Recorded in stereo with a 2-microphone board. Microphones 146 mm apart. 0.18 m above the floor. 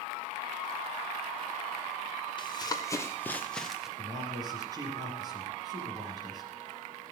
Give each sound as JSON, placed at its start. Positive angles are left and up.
{"t": 2.4, "sound": "running footsteps", "side_deg": 30, "distance_m": 1.9}
{"t": 4.0, "sound": "a man speaking", "side_deg": -25, "distance_m": 4.5}